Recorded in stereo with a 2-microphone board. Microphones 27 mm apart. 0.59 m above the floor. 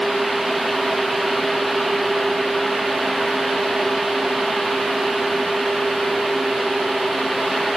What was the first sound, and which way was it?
Only background noise.